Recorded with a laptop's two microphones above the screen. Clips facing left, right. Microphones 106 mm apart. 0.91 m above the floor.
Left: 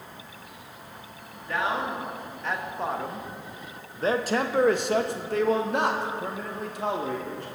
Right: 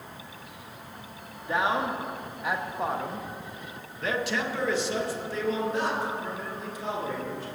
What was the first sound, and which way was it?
A man speaking, 20° right (ahead or behind).